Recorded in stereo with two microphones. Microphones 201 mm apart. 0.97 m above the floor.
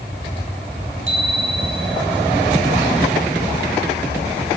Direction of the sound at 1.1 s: 85° right.